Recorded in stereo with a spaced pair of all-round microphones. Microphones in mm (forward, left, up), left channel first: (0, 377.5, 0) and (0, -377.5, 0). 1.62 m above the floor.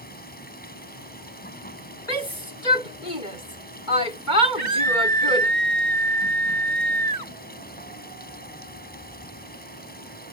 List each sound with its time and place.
0.0 s running water: 10° left (ahead or behind)
2.1 s a shout: 85° left
4.6 s a scream: 75° right (ahead or behind)